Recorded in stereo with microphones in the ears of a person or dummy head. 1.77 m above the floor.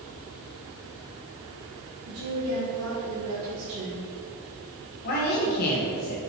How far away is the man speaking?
About 2 m.